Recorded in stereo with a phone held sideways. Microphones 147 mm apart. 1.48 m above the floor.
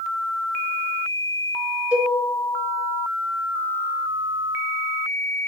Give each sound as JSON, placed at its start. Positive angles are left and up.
{"t": 1.9, "sound": "a cowbell", "side_deg": -5, "distance_m": 0.7}